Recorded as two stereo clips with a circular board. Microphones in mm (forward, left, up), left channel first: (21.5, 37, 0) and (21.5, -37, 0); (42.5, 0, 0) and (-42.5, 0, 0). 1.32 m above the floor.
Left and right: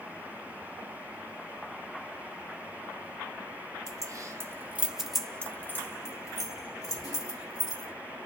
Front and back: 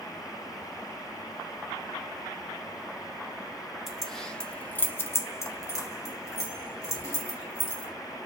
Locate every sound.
3.9 s keys jangling: 90° right, 0.8 m; by 7.9 s 60° left, 1.8 m